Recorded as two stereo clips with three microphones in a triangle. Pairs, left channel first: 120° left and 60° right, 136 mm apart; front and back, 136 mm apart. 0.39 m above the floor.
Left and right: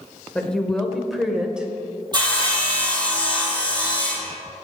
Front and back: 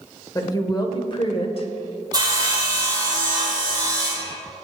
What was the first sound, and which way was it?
A woman speaking, 45° left.